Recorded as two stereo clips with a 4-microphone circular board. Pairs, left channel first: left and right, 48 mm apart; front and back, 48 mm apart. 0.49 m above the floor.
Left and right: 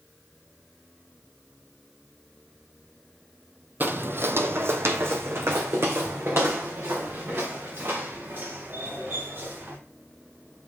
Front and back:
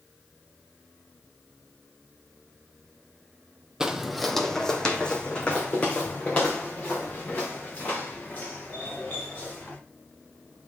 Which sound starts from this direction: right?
Footsteps, at 3.8 s.